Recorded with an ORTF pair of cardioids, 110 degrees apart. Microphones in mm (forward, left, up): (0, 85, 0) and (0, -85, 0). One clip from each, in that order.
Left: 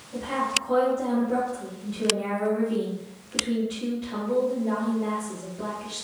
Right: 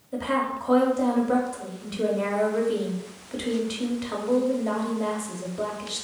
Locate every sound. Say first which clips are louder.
0.1 s a woman speaking: even; 70° right, 1.0 m